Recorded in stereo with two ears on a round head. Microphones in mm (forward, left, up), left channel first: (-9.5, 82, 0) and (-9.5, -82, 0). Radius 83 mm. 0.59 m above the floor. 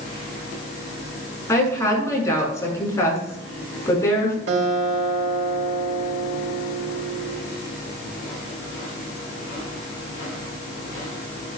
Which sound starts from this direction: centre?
A woman speaking, at 1.5 s.